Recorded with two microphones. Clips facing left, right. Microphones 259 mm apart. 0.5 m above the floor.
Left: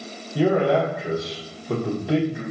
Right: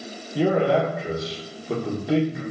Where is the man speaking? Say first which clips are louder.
Left 1 dB; centre (ahead or behind), 0.8 m.